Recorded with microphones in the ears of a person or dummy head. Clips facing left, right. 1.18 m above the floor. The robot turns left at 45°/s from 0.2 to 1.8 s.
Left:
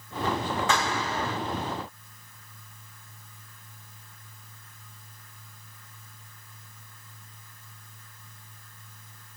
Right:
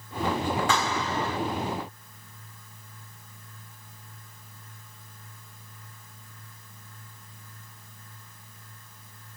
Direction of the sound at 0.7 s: 100° left.